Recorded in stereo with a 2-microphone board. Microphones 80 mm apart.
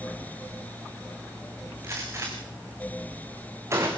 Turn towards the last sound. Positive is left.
turn(degrees=-35)  # may be behind; listen again after turning